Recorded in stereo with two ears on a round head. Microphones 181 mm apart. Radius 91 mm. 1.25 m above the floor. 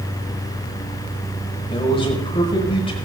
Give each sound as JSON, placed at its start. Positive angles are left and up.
{"t": 1.7, "sound": "a man speaking", "side_deg": 30, "distance_m": 5.5}